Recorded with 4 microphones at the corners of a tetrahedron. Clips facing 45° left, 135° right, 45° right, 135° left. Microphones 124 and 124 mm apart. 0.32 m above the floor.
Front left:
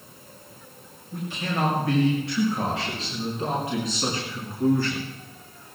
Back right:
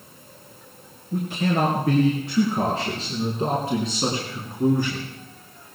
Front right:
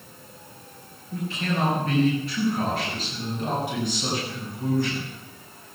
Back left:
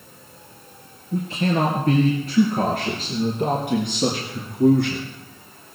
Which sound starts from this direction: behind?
A man speaking, at 1.1 s.